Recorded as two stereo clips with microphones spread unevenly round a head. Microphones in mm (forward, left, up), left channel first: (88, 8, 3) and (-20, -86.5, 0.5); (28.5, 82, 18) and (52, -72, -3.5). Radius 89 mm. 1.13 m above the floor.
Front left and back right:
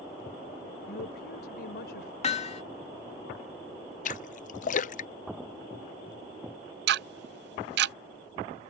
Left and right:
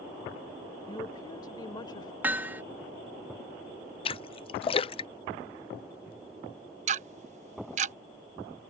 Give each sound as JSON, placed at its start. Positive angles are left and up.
{"t": 0.9, "sound": "a woman speaking", "azimuth_deg": 35}
{"t": 2.2, "sound": "hammering", "azimuth_deg": -5}
{"t": 4.0, "sound": "a splash", "azimuth_deg": 45}
{"t": 6.9, "sound": "ticking", "azimuth_deg": -135}